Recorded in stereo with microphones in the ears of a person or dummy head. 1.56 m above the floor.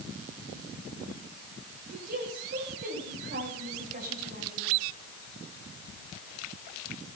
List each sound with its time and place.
1.9 s a woman speaking: 55° right (ahead or behind), 9 m